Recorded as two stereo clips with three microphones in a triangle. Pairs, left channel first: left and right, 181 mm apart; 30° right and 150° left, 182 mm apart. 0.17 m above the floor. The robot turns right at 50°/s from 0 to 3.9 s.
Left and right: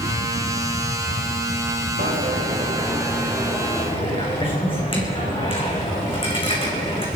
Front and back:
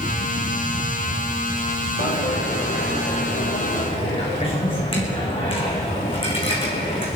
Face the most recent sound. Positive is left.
turn(degrees=30)